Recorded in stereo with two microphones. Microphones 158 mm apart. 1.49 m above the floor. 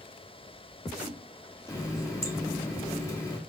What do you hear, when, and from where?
1.7 s a running tap: 20° left (ahead or behind), 1.0 m